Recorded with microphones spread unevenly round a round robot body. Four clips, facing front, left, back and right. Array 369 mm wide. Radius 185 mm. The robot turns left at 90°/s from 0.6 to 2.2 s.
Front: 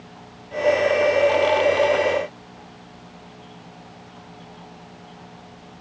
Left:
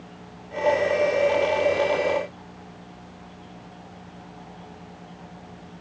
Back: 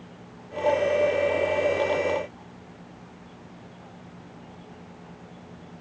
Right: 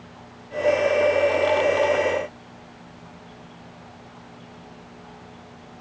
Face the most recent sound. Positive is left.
No sound to turn to.